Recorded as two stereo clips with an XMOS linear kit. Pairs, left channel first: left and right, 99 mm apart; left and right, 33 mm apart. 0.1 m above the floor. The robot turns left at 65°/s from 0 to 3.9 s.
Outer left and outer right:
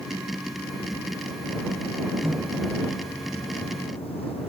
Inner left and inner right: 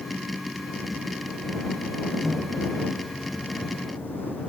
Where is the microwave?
155° right; by 4.5 s 95° left.